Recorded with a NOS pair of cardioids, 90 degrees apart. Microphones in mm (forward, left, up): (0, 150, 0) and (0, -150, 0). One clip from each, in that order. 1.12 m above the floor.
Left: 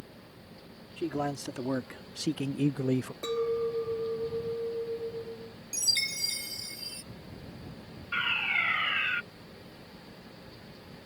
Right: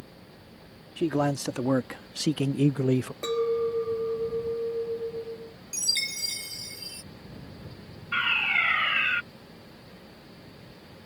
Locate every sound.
1.0 s a man speaking: 45° right; by 3.1 s 10° right
3.2 s a clink: 25° right
5.7 s a chime: 5° right
8.1 s a fire alarm: 25° right